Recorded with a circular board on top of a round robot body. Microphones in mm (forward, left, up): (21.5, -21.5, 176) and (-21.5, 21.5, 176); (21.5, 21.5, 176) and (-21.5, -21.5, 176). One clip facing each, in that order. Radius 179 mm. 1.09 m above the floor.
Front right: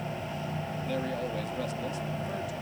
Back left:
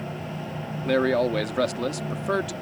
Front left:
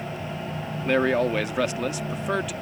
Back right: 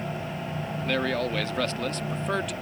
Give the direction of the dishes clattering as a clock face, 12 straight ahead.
No dishes clattering in this recording.